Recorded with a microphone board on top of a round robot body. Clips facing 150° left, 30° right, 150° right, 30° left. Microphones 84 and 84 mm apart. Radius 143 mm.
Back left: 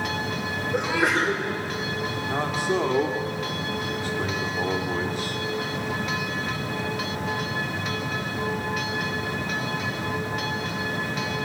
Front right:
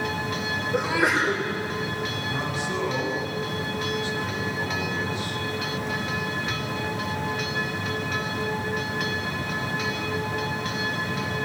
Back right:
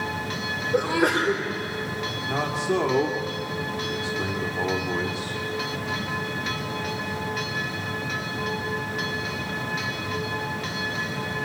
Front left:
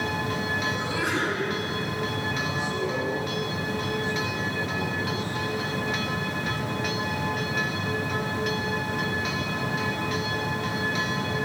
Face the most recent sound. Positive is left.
turn(degrees=-165)